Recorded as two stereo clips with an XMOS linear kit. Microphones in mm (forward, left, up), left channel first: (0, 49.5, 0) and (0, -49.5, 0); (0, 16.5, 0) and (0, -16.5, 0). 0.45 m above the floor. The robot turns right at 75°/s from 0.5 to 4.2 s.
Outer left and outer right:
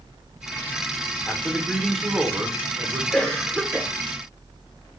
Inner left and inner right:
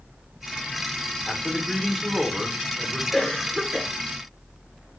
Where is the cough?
155° left, 0.9 m; by 3.9 s 145° right, 0.9 m.